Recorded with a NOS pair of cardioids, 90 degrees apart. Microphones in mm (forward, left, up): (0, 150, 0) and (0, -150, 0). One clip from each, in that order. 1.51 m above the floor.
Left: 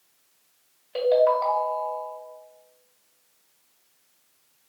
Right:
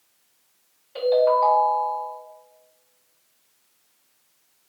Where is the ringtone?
70° left, 2.0 m.